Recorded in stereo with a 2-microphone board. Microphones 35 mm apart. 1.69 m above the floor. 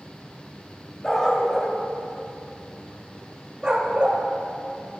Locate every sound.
1.0 s a dog barking: 15° left (ahead or behind), 2 m; by 4.2 s 35° right (ahead or behind), 1.6 m